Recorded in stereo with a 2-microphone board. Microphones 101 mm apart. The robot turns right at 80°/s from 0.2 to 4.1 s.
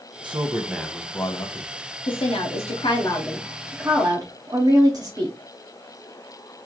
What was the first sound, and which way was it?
A man speaking, 55° right.